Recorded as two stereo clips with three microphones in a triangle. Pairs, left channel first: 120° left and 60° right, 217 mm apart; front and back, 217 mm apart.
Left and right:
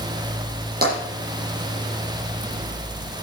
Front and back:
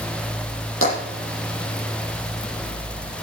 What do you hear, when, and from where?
0.8 s tapping: 15° right, 8 m